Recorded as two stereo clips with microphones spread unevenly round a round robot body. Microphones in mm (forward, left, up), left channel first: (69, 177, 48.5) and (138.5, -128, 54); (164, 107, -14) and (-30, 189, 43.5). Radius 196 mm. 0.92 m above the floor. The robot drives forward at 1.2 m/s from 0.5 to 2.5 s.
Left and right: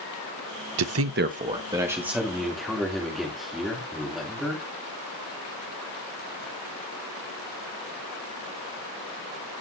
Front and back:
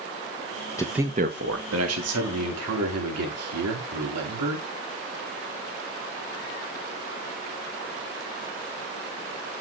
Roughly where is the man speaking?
Right.